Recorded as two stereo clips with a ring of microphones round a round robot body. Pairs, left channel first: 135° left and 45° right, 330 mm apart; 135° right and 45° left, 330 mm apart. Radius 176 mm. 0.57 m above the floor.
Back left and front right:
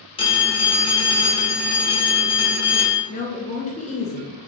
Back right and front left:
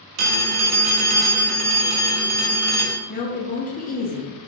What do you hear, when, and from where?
0.2 s a phone ringing: 60° left, 0.8 m
3.1 s a woman speaking: 175° right, 0.6 m